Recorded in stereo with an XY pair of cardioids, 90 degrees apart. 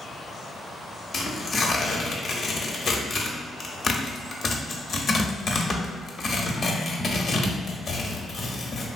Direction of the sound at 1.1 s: 50° left.